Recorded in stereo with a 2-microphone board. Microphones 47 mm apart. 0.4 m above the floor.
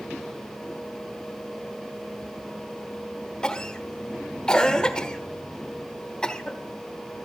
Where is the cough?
20° left (ahead or behind), 1.2 m.